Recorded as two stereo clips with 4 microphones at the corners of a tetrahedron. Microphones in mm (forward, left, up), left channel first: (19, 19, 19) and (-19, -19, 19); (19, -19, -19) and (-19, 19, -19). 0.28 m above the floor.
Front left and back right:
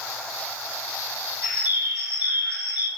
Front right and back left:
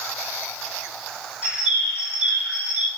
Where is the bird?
170° right, 1.5 m.